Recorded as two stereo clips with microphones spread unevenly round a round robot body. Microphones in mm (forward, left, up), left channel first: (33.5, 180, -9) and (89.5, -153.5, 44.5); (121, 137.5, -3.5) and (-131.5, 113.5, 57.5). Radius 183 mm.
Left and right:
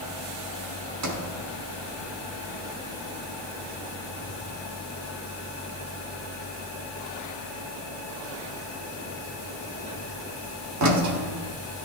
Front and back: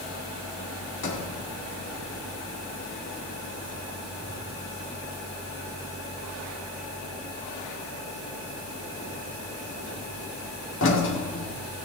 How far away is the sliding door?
About 1.8 m.